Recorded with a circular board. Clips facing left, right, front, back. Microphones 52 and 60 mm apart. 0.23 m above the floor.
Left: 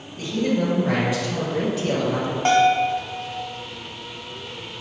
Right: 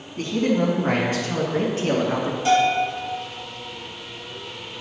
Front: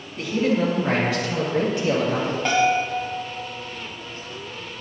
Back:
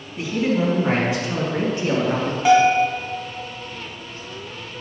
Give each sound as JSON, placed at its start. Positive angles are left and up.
{"t": 0.2, "sound": "a man speaking", "azimuth_deg": -100, "distance_m": 2.0}
{"t": 2.5, "sound": "a bell", "azimuth_deg": 100, "distance_m": 1.2}